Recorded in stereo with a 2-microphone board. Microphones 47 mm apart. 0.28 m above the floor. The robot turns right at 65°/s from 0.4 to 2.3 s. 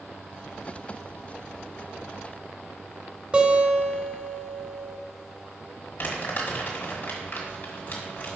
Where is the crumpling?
45° left (ahead or behind), 1.9 m.